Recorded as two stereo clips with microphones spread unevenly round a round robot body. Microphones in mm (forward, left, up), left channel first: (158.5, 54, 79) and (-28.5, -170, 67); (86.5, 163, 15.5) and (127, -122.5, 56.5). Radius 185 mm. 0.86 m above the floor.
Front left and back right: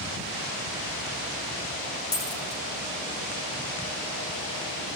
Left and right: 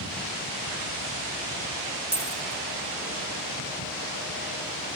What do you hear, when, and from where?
2.1 s a dropped coin: 10° right, 9.5 m